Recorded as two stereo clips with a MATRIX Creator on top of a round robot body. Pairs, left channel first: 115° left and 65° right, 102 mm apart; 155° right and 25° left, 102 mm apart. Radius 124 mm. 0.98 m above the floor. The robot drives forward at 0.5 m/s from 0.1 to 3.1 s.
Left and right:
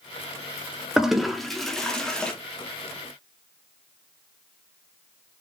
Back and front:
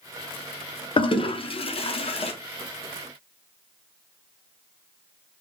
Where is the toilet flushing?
150° right, 0.9 m; by 2.3 s 165° right, 1.5 m.